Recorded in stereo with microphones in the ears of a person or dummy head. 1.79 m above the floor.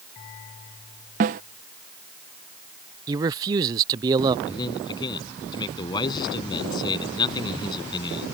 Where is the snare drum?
40° right (ahead or behind).